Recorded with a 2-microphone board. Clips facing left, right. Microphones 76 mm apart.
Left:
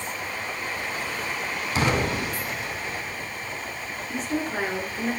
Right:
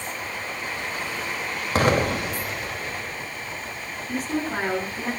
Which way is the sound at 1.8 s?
50° right (ahead or behind).